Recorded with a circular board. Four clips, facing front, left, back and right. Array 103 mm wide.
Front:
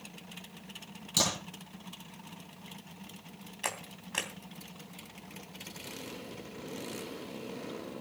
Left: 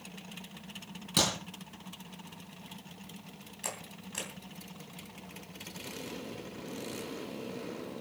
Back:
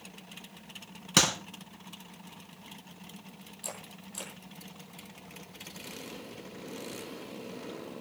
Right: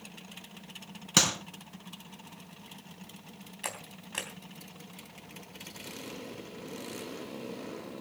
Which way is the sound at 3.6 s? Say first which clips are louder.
Right 1 dB, front 6 dB; 20° right.